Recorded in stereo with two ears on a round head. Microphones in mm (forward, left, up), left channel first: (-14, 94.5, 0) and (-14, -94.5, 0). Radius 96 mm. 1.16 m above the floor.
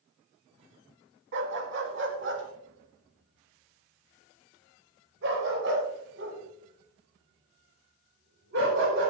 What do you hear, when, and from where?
1.3 s a dog barking: 55° right (ahead or behind), 2.5 m